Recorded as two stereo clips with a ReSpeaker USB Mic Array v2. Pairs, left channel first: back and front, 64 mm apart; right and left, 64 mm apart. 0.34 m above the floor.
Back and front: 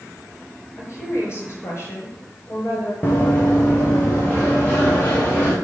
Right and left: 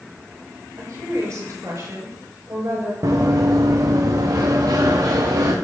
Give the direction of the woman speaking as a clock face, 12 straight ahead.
8 o'clock.